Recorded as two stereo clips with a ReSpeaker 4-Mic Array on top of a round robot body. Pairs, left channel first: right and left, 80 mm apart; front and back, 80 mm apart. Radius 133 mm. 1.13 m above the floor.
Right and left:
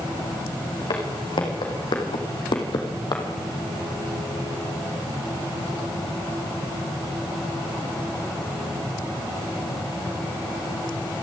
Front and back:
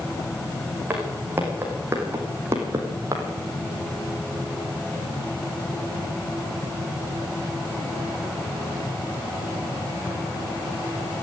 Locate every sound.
0.9 s footsteps: 115° right, 5 m; by 3.2 s 125° right, 3 m